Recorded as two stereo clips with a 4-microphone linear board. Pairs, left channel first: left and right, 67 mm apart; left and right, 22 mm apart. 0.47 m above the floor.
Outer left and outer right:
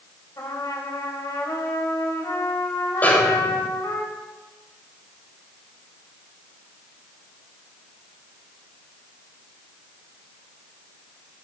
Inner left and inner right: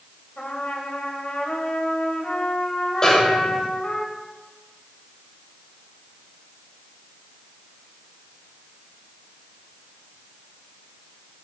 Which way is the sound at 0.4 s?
65° left (ahead or behind).